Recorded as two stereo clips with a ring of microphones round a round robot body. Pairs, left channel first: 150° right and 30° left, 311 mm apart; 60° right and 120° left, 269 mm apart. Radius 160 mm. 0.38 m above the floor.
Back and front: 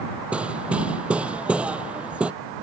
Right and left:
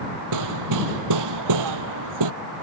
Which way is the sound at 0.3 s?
115° left.